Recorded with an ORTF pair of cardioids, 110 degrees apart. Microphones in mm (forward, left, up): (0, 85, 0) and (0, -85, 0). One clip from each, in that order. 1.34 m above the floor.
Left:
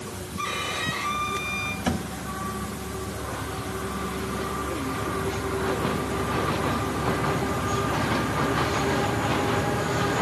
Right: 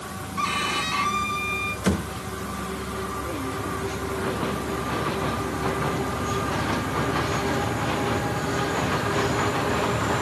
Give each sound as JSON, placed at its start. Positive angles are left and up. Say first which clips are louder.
{"t": 0.4, "sound": "a violin", "louder": "right 4 dB", "azimuth_deg": -60, "distance_m": 5.0}
{"t": 1.9, "sound": "a thud", "louder": "right 2 dB", "azimuth_deg": -60, "distance_m": 2.5}